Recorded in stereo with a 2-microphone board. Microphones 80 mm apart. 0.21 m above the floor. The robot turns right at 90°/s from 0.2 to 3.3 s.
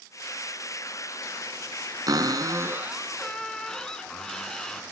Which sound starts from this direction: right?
A cupboard door, at 2.1 s.